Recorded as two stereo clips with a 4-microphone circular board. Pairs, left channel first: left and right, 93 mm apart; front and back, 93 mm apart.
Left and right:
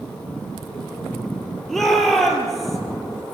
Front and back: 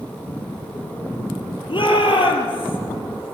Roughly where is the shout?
Ahead.